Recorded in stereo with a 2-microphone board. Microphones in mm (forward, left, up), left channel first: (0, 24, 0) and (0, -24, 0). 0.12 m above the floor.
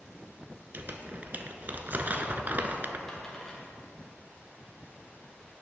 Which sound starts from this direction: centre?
A dropped coin, at 3.1 s.